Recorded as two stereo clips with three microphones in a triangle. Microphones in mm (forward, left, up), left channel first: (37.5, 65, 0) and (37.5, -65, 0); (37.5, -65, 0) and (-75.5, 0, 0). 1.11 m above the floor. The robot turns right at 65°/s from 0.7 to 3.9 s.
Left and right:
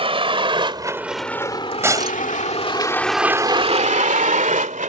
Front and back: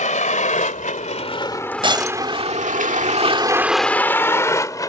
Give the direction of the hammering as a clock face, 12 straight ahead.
No hammering in this recording.